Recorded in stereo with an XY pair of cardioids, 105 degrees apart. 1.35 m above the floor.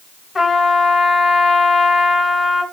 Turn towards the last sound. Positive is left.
turn(degrees=25)